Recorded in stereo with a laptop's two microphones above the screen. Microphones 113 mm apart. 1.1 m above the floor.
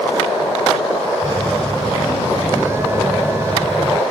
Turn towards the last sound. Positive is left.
turn(degrees=-25)  # may be behind; listen again after turning